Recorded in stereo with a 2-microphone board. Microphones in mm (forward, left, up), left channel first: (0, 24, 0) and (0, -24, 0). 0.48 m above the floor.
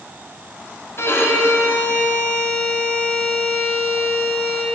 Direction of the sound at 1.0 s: 80° left.